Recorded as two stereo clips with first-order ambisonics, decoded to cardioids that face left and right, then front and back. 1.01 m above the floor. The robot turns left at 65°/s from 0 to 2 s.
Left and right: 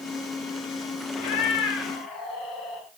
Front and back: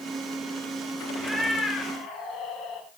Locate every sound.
1.2 s a cat meowing: 100° left, 3 m; by 2.9 s 50° left, 3 m